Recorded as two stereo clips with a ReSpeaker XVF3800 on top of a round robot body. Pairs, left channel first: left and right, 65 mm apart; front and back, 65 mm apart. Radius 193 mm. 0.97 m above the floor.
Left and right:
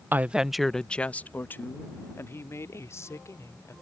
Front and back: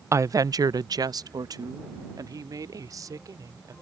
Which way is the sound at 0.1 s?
145° right.